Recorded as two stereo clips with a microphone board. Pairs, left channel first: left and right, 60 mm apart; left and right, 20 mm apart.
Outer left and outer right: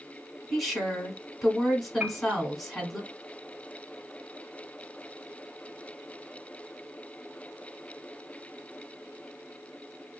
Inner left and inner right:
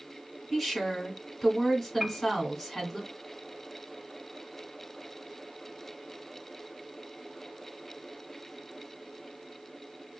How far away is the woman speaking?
About 1.3 m.